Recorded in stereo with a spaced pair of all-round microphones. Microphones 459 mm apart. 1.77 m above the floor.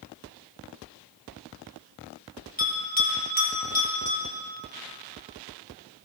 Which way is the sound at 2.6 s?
15° left (ahead or behind).